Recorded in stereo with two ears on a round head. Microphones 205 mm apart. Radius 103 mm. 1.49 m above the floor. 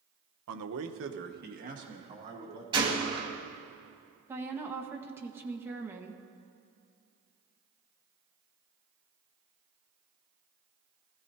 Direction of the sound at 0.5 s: 70° right (ahead or behind).